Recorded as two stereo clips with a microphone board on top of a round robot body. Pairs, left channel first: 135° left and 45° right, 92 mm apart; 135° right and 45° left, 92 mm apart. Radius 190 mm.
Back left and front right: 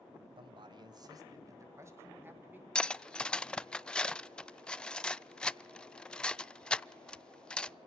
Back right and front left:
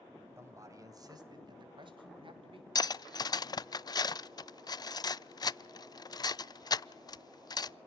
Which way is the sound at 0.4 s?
15° right.